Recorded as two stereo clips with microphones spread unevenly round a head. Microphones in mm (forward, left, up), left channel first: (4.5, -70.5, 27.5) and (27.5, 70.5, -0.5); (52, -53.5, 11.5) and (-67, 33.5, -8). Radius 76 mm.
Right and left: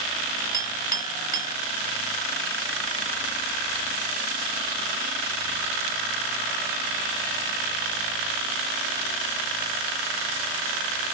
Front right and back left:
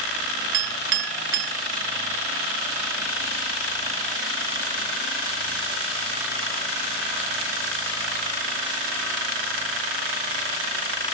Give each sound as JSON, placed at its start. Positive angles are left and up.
{"t": 0.5, "sound": "a clink", "azimuth_deg": 150, "distance_m": 0.7}